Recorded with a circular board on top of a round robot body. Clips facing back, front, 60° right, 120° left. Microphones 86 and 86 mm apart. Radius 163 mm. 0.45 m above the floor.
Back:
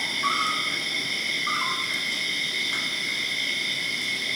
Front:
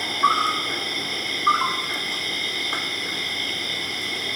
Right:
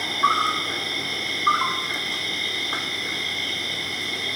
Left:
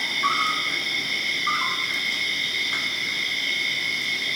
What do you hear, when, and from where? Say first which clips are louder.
0.0 s an insect: front 6 dB, right 3 dB; 20° right, 3 m